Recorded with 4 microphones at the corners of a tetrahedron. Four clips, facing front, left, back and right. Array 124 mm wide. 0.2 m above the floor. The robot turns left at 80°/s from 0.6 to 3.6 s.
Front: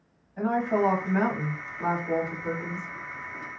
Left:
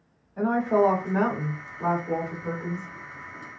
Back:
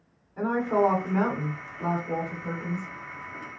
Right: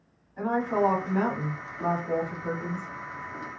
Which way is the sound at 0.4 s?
140° left.